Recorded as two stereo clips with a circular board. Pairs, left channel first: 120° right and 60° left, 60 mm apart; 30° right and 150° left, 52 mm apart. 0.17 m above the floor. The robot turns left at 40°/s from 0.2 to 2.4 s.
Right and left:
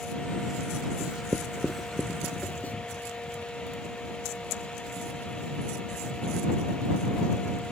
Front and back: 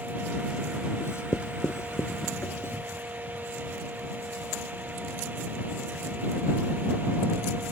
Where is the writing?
5° right; by 2.7 s 60° right.